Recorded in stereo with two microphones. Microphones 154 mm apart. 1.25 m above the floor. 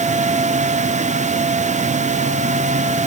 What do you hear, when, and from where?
Only background noise.